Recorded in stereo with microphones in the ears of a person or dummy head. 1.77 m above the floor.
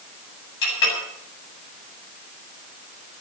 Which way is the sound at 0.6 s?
60° left (ahead or behind).